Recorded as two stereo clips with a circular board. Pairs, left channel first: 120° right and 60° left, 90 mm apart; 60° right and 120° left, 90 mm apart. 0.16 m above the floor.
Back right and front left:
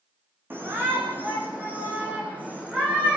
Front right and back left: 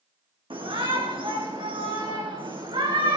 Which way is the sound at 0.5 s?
125° left.